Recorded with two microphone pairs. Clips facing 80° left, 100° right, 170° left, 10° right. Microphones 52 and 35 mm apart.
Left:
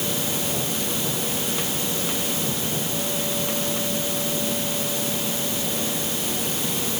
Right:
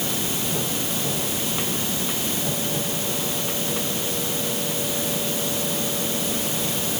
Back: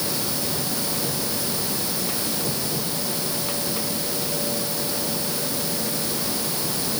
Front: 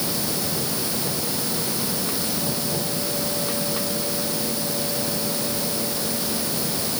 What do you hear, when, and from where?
Only background noise.